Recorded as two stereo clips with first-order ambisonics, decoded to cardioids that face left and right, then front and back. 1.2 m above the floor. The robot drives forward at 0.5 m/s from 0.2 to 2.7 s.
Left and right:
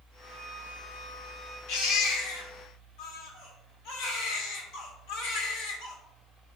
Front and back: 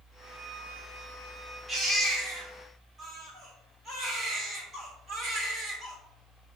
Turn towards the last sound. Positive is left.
turn(degrees=110)